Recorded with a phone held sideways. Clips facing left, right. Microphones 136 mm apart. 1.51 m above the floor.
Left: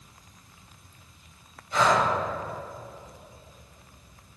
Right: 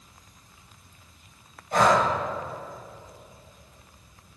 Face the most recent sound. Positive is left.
turn(degrees=-50)  # may be behind; listen again after turning